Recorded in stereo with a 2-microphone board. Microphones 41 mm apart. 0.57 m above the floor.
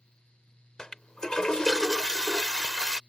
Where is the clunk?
I don't hear a clunk.